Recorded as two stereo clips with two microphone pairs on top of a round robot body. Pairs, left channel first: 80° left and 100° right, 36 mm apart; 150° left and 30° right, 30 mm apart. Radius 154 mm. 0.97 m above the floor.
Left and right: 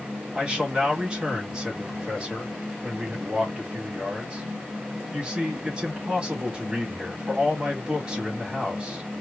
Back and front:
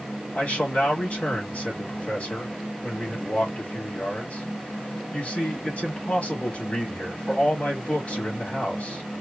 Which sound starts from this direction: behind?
A man speaking, at 0.3 s.